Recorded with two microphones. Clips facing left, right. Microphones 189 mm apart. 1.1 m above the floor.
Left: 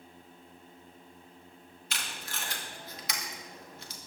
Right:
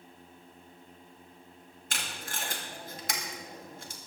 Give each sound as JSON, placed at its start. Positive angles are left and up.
{"t": 1.9, "sound": "tape being pulled", "side_deg": -50, "distance_m": 2.5}